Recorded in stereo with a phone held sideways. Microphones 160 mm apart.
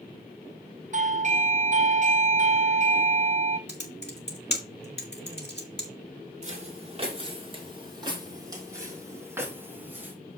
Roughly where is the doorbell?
Right.